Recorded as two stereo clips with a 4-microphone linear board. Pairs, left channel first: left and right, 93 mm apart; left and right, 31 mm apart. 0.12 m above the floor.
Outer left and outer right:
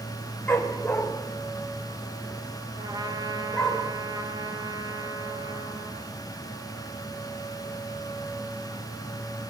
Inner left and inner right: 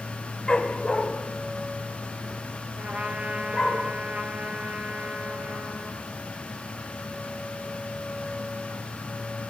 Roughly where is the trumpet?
Right.